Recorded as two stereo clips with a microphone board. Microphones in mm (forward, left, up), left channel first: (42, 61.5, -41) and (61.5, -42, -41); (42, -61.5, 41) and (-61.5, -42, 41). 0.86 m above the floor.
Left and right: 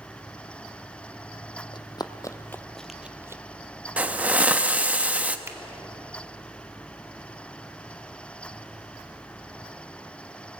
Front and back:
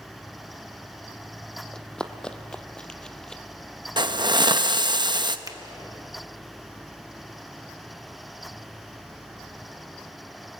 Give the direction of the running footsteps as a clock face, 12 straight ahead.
10 o'clock.